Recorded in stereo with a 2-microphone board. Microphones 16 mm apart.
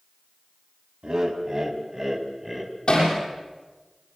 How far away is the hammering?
About 8.5 m.